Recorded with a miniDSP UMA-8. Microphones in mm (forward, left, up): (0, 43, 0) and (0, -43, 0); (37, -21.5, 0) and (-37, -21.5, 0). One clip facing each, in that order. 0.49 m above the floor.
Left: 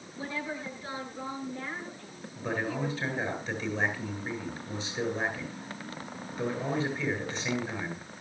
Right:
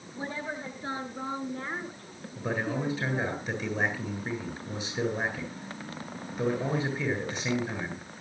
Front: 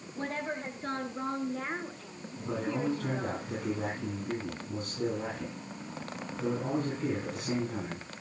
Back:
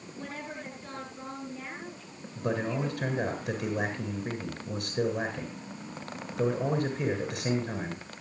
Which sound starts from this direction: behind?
A man speaking, at 2.4 s.